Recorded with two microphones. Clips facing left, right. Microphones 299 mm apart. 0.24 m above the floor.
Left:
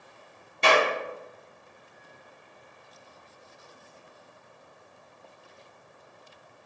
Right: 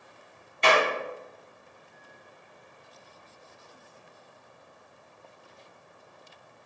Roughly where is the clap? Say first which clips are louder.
Left 1 dB; left.